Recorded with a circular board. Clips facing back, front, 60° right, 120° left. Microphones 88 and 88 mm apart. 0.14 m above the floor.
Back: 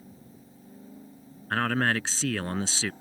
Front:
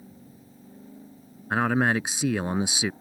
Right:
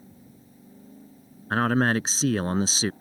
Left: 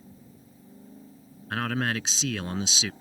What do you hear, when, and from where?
1.5 s a man speaking: 60° right